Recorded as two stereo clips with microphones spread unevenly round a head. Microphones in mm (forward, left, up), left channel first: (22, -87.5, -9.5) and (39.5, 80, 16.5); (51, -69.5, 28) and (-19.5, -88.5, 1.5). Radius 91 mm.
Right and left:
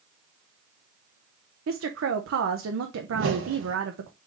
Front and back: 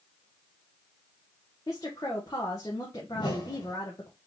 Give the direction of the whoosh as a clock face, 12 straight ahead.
10 o'clock.